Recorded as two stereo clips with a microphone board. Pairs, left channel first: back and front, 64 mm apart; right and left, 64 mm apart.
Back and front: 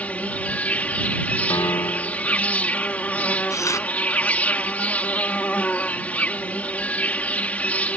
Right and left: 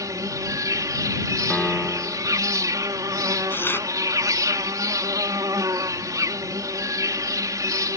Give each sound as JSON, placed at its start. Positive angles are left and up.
{"t": 0.0, "sound": "an insect", "azimuth_deg": 115}
{"t": 1.5, "sound": "a piano", "azimuth_deg": -175}
{"t": 3.5, "sound": "tearing paper", "azimuth_deg": -145}